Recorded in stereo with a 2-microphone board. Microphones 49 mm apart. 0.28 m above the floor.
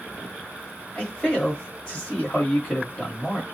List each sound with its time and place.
0.9 s a man speaking: 20° left (ahead or behind), 1.3 m